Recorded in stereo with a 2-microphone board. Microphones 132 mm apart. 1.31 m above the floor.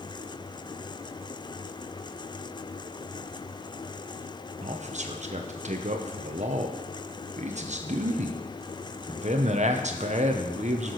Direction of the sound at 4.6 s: 55° right (ahead or behind).